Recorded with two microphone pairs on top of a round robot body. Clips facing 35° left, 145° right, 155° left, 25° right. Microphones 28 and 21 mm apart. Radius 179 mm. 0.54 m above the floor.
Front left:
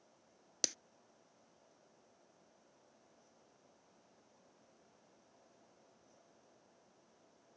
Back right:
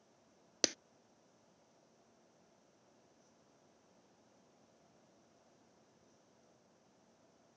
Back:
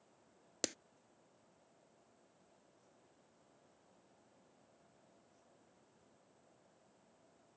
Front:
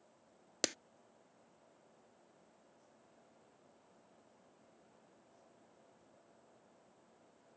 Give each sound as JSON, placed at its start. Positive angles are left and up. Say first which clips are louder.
{"t": 0.6, "sound": "a clap", "louder": "back right 4 dB, front 4 dB", "azimuth_deg": -85}